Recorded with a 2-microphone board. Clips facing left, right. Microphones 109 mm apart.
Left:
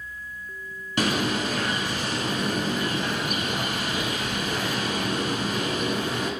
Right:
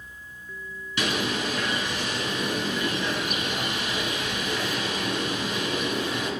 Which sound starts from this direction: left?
A bird, at 1.0 s.